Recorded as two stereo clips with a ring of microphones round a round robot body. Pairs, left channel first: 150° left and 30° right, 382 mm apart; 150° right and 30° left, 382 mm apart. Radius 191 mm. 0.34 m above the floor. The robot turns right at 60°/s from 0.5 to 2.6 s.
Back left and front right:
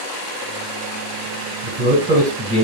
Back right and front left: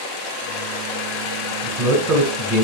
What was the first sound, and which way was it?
A man speaking, 10° left.